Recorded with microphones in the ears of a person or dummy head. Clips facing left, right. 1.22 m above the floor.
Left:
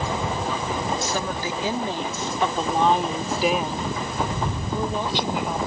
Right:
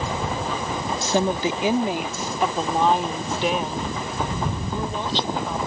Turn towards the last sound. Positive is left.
turn(degrees=15)  # may be behind; listen again after turning